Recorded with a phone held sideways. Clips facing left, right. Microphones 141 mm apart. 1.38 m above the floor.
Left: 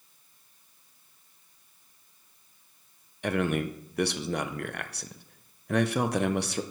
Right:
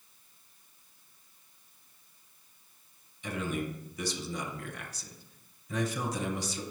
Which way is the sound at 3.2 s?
65° left (ahead or behind).